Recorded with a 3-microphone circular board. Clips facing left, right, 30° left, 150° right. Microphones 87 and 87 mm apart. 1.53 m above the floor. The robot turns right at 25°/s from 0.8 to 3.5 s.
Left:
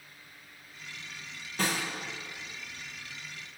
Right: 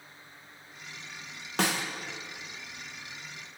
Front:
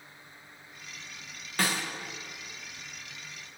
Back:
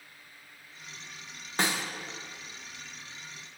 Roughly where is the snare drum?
Right.